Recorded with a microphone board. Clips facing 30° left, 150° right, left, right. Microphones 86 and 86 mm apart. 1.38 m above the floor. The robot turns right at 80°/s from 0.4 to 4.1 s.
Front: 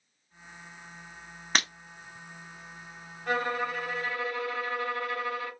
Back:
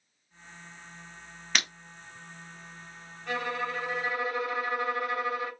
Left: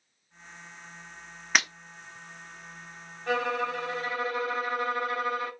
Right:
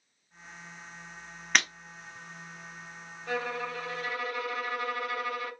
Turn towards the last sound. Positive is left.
turn(degrees=140)